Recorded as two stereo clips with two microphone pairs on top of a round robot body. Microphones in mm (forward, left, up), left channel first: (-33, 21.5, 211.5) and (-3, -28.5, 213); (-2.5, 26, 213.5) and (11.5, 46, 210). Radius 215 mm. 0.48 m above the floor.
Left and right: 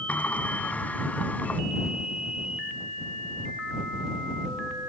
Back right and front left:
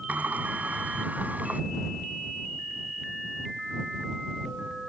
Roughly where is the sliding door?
Ahead left.